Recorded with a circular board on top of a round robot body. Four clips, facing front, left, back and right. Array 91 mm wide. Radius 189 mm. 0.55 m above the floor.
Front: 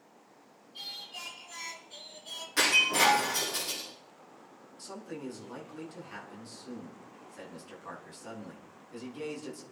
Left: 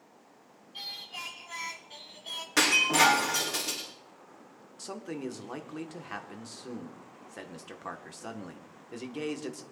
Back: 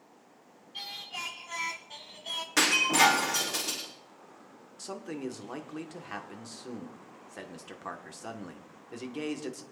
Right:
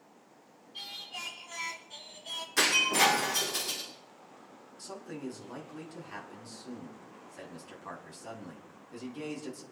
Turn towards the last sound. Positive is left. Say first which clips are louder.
# left 4 dB, back 4 dB
turn(degrees=135)